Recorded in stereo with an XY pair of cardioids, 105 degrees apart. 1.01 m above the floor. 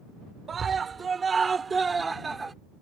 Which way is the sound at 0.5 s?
40° right.